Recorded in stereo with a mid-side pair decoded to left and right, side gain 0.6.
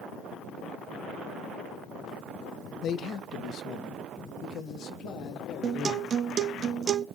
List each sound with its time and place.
2.8 s a man speaking: 50° left, 0.8 m; by 6.2 s 60° left, 3 m
5.6 s a guitar: 40° right, 0.8 m